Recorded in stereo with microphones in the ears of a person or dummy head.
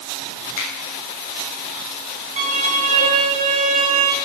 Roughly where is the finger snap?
Left.